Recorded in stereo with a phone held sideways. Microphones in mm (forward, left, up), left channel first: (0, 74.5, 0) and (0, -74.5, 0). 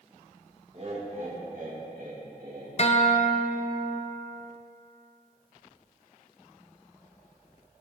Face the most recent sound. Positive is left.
turn(degrees=45)  # may be behind; listen again after turning